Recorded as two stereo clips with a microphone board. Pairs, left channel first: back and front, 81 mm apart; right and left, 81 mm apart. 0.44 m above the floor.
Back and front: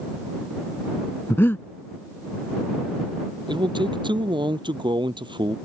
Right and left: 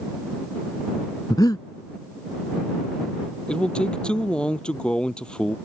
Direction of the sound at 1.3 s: 120° right.